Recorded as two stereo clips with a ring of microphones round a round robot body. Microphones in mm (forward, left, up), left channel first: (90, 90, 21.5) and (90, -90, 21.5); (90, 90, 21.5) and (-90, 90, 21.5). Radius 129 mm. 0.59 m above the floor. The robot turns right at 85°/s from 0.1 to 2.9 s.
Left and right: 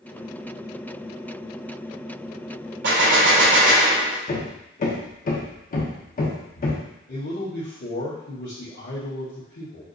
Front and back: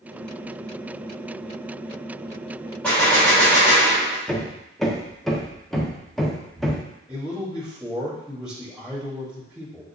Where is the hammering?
90° left, 0.8 m.